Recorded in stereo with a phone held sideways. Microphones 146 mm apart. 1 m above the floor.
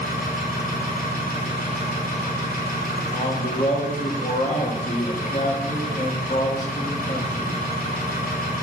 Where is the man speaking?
60° left (ahead or behind), 1.7 m.